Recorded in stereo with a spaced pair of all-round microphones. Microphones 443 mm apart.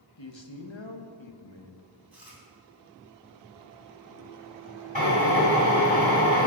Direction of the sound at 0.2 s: 80° left.